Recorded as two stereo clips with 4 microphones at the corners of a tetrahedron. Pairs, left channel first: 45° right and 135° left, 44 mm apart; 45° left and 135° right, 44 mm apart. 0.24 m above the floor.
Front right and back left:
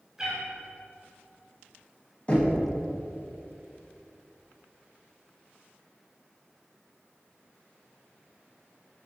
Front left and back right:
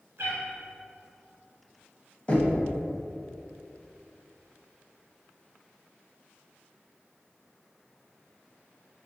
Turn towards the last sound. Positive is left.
turn(degrees=-5)